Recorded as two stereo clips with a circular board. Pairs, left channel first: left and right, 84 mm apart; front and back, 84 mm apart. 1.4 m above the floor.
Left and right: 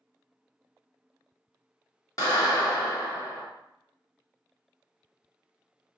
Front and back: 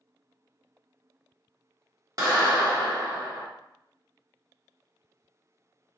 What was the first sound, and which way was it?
A clap, 135° left.